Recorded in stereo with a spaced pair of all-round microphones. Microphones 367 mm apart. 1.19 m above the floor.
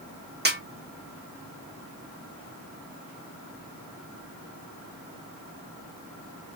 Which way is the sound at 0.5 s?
30° right (ahead or behind).